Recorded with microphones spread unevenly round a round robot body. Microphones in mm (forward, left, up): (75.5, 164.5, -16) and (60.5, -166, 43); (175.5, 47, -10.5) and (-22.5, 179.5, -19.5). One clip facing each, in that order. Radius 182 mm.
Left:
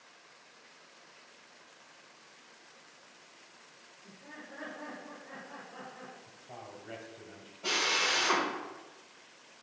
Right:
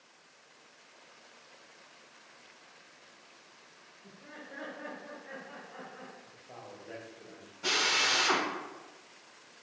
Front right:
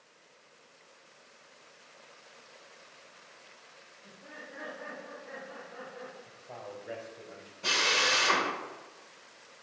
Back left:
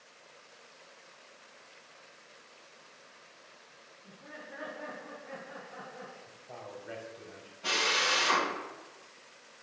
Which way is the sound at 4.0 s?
135° right.